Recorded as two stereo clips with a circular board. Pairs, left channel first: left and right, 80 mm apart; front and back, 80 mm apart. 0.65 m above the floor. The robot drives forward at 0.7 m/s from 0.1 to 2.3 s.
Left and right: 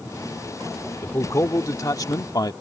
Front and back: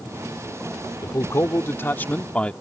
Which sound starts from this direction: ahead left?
A man speaking, at 1.0 s.